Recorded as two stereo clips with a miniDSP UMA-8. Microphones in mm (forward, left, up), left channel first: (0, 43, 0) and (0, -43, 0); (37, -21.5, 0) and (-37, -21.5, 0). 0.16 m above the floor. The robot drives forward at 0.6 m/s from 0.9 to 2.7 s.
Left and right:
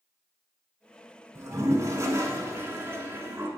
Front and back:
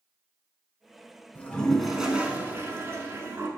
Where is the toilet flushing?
55° right, 0.8 m; by 3.5 s 140° right, 0.9 m.